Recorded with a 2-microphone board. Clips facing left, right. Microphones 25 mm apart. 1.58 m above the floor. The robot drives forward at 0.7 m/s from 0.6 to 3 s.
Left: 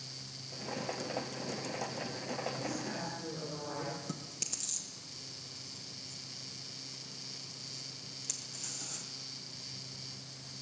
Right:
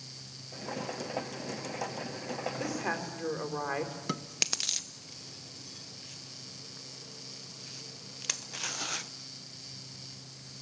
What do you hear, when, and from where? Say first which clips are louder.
2.6 s a woman speaking: right 4 dB; 75° right (ahead or behind), 4.5 m; by 3.9 s 80° right, 4.5 m
4.1 s chewing: right 8 dB; 55° right (ahead or behind), 0.7 m